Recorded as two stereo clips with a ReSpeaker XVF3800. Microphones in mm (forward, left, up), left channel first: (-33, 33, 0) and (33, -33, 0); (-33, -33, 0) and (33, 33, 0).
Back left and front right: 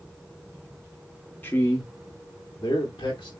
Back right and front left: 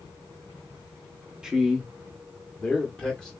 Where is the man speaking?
110° left, 0.7 m; by 3.3 s 145° left, 1.7 m.